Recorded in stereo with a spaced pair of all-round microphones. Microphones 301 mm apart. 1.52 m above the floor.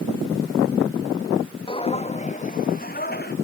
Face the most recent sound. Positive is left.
turn(degrees=35)  # may be behind; listen again after turning